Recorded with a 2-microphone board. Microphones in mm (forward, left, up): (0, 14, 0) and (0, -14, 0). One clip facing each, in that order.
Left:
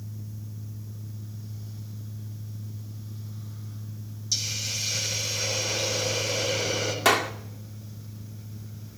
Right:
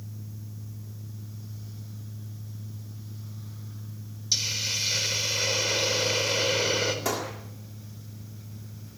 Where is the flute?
I don't hear a flute.